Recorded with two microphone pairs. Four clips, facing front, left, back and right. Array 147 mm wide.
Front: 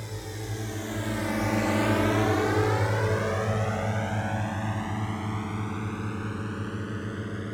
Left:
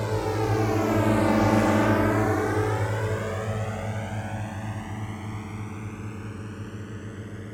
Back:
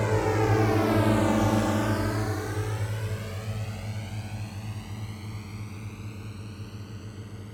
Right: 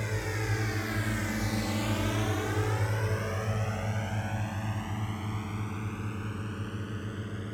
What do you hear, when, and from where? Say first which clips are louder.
0.0 s a drone: left 9 dB, back 14 dB; 155° left; by 7.5 s 10° left